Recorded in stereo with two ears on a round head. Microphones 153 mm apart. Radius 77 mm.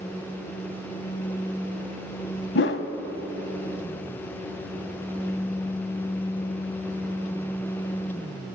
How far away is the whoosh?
About 0.7 m.